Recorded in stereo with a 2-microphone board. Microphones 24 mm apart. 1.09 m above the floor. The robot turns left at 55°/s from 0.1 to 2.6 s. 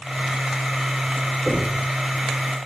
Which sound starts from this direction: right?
Knocking, at 1.5 s.